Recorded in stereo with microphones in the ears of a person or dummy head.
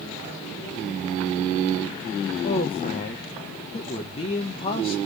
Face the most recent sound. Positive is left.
turn(degrees=25)  # may be behind; listen again after turning